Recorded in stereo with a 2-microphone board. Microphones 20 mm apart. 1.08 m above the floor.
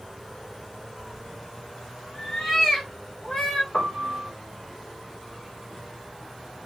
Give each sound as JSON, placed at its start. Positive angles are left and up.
{"t": 1.0, "sound": "a cat meowing", "side_deg": 20, "distance_m": 1.7}
{"t": 3.7, "sound": "a piano", "side_deg": 75, "distance_m": 2.0}